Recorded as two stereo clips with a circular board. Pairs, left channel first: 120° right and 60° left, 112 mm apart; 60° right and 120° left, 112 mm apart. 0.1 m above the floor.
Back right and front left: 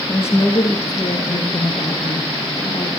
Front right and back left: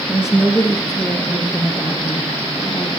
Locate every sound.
0.1 s a woman speaking: 165° right, 1.7 m; by 2.9 s 120° right, 2.5 m